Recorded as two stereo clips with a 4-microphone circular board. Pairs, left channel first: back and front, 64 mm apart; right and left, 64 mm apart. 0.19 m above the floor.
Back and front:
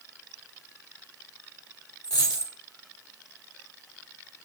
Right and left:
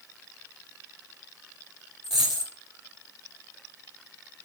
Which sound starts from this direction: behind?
A dropped coin, at 2.0 s.